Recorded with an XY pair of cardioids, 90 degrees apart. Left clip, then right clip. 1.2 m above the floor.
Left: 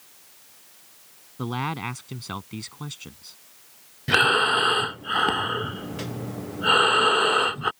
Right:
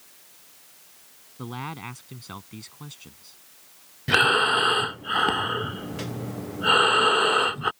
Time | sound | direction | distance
1.4 | a man speaking | 45° left | ?
4.1 | breathing | straight ahead | ?